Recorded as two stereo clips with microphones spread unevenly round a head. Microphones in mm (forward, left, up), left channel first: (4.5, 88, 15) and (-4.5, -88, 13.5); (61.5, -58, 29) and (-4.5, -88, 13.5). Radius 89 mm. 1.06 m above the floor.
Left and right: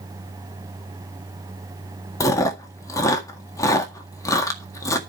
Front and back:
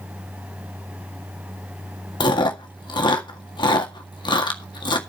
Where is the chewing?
15° left, 1.8 m.